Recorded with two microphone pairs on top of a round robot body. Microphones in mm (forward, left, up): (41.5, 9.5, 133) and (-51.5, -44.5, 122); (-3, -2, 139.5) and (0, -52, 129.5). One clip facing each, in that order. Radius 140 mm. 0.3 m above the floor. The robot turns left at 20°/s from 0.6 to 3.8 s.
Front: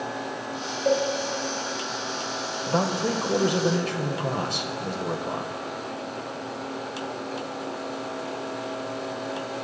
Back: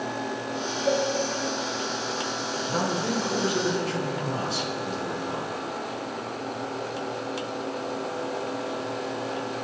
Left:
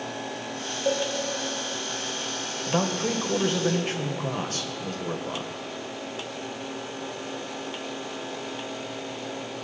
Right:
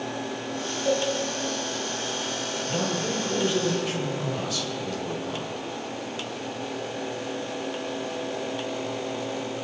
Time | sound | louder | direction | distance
0.8 | a cowbell | front 2 dB, right 1 dB | 40° left | 3.5 m
2.7 | a man speaking | front 3 dB, left 3 dB | 65° left | 1.9 m